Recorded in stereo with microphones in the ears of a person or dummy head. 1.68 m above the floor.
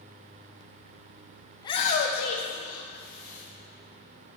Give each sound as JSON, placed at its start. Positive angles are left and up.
{"t": 1.6, "sound": "a shout", "side_deg": 20, "distance_m": 1.1}